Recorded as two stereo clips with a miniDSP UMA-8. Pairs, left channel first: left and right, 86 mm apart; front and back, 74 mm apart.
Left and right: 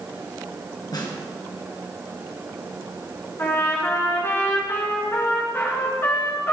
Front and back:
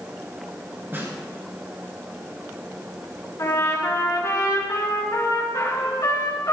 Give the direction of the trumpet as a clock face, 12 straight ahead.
11 o'clock.